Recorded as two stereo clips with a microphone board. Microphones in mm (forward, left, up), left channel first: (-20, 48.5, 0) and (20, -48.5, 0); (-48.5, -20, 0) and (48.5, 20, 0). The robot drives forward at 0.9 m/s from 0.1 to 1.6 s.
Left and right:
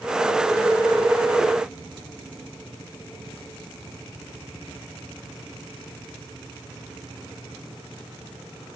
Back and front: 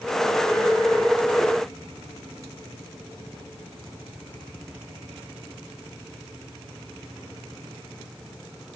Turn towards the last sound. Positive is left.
No sound to turn to.